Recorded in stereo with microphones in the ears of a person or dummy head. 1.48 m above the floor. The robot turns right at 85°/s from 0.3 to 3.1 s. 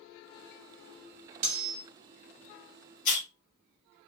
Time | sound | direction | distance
1.4 | cutlery clinking | 70° right | 1.0 m
3.0 | a hiss | 40° left (ahead or behind) | 1.7 m